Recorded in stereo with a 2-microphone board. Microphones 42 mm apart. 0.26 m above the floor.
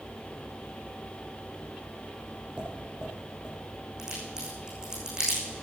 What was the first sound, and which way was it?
Tapping, 25° right (ahead or behind).